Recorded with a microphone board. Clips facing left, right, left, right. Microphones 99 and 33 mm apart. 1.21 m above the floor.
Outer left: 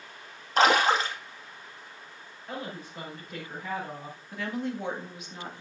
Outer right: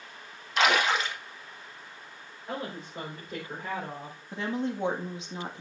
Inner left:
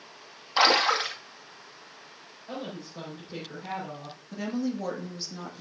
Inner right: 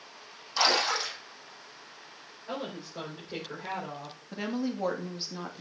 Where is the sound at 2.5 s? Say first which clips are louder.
Outer right 2 dB, inner right 1 dB; 30° right (ahead or behind), 5 m.